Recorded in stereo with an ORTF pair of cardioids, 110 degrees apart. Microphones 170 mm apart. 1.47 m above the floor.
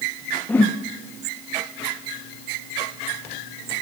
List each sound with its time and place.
0.5 s a whoosh: 10° left, 1.0 m